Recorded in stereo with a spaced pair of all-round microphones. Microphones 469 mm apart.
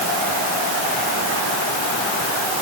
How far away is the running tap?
No running tap in this recording.